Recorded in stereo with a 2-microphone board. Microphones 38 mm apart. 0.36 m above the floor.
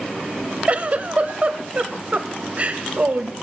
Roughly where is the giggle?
Right.